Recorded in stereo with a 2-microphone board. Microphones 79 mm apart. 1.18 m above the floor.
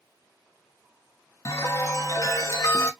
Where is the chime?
40° left (ahead or behind), 0.6 m.